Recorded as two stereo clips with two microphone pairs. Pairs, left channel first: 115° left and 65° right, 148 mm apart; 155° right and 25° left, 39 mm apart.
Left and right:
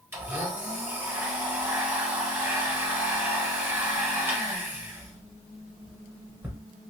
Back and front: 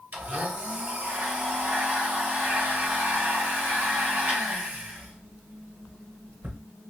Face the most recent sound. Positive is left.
turn(degrees=10)